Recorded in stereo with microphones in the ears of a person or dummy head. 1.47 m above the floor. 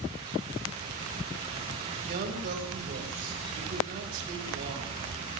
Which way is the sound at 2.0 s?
50° right (ahead or behind).